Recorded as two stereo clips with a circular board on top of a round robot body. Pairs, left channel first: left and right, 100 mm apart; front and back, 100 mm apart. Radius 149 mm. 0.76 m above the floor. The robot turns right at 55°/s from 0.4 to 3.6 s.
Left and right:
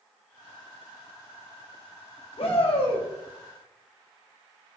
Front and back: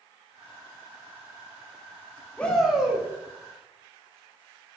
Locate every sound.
2.4 s a shout: 75° left, 2 m; by 3.1 s 110° left, 2 m